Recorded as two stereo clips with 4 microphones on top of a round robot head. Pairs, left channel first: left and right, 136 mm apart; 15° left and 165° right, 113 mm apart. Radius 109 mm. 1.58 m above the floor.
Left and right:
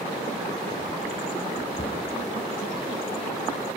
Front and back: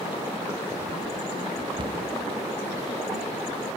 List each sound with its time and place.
1.8 s a cupboard door: 145° left, 2 m